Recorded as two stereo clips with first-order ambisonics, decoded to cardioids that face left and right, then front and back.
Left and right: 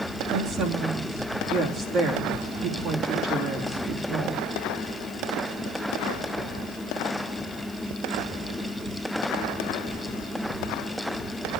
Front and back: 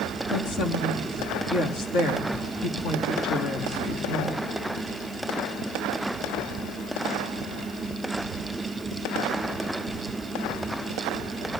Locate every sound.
0.3 s a woman speaking: 30° right, 3 m